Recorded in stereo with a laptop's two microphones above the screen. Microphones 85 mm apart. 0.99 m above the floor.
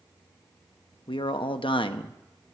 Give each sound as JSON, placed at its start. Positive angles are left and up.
{"t": 1.1, "sound": "a man speaking", "side_deg": 80, "distance_m": 0.8}